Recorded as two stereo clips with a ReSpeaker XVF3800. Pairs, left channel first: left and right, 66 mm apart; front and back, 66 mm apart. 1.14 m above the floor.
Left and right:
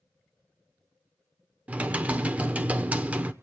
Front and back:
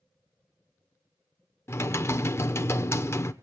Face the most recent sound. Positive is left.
turn(degrees=-30)